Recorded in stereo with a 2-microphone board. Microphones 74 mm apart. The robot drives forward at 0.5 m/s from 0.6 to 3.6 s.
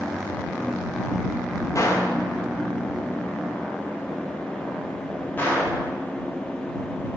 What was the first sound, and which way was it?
A gunshot, 45° left (ahead or behind).